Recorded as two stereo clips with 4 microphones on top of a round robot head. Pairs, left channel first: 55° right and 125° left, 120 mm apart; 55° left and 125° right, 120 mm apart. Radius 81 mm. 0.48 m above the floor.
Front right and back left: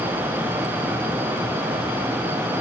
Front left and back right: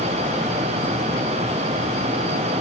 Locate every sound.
Only background noise.